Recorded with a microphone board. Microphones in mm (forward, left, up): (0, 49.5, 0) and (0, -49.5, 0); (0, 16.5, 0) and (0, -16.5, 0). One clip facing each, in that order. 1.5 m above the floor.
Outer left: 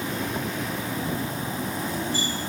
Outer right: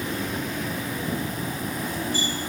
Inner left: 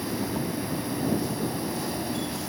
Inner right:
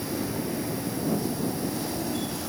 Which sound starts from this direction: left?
An insect, at 0.0 s.